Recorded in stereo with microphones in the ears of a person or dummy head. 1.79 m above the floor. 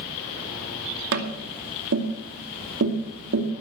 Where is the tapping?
70° right (ahead or behind), 2.5 m.